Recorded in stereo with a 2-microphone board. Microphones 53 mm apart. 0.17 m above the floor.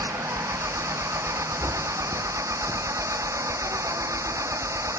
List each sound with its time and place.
0.0 s an engine running: 80° right